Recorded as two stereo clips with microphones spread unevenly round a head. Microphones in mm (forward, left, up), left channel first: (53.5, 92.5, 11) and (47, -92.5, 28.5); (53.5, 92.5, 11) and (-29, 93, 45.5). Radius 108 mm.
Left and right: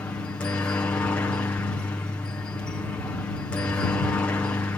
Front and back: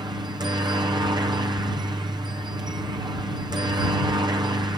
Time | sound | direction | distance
0.0 | a helicopter | 160° left | ?